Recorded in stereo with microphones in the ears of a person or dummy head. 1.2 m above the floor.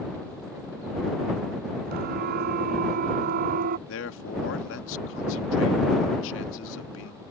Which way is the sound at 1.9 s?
60° right (ahead or behind).